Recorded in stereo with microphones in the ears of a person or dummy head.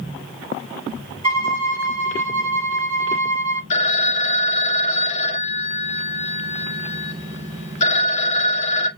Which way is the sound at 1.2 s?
30° right (ahead or behind).